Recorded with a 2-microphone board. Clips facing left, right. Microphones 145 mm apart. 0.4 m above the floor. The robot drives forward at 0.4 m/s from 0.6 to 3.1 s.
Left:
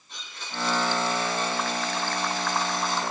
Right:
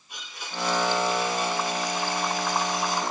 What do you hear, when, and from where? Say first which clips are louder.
0.1 s a blender: right 1 dB; 10° right (ahead or behind), 9.5 m